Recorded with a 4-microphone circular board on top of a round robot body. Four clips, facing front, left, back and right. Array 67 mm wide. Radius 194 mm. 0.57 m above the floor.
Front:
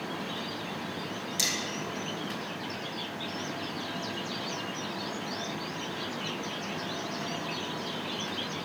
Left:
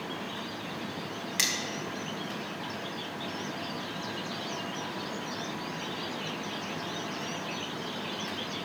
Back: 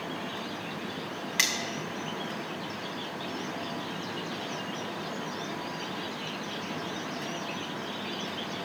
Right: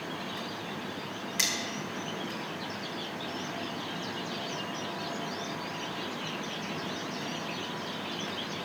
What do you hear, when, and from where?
1.4 s cutlery clinking: 175° left, 1.5 m